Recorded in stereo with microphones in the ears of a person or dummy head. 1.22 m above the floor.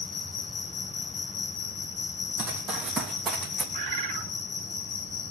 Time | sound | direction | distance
0.0 | an insect | 45° left (ahead or behind) | 4 m
2.4 | running footsteps | 10° right (ahead or behind) | 2.5 m
3.7 | a bird | 40° right (ahead or behind) | 4 m